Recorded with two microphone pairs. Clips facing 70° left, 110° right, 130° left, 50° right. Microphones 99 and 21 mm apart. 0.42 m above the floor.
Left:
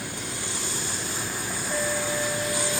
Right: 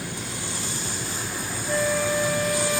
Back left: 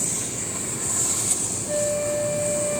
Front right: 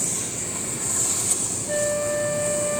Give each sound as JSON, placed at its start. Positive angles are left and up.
{"t": 1.7, "sound": "a flute", "azimuth_deg": -130, "distance_m": 1.7}